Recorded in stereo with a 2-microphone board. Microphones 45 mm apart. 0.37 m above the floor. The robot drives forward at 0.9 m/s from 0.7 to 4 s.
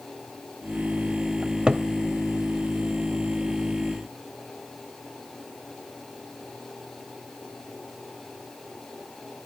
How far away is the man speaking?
I don't hear a man speaking.